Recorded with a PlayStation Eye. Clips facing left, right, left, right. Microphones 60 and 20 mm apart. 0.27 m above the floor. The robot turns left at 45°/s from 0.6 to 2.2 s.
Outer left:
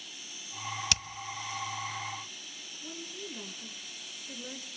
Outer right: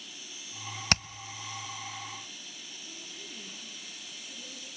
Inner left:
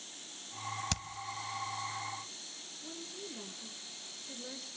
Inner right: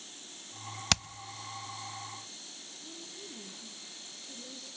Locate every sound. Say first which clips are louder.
0.9 s hammering: outer right 9 dB, inner right 12 dB; 45° right (ahead or behind), 0.5 m; by 1.0 s 50° right (ahead or behind), 0.5 m
2.8 s a woman speaking: outer left 8 dB, inner left 2 dB; 45° left (ahead or behind), 4.5 m